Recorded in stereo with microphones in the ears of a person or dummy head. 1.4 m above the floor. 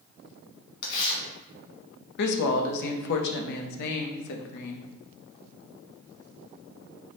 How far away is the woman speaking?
About 0.6 m.